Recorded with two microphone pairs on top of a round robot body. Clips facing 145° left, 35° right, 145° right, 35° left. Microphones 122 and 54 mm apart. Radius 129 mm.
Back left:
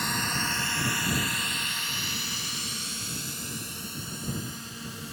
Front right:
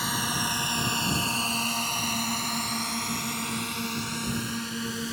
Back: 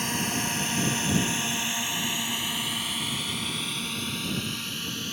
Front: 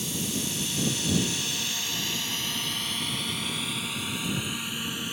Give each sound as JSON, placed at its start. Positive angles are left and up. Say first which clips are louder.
{"t": 0.0, "sound": "a drone", "louder": "front right 1 dB, back 3 dB", "azimuth_deg": -120}